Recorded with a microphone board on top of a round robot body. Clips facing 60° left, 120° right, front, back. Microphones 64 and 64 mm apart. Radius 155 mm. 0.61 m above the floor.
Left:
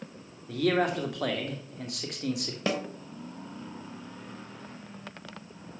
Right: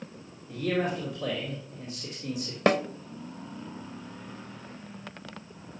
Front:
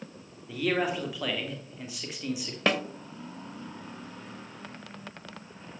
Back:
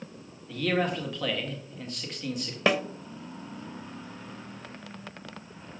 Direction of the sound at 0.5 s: 85° left.